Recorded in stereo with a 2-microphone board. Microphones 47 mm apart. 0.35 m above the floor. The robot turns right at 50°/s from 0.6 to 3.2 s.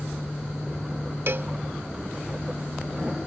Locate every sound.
1.3 s a cowbell: 60° right (ahead or behind); by 1.5 s 50° right (ahead or behind)